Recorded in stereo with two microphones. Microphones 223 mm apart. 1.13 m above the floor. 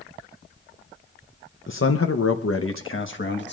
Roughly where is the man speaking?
Left.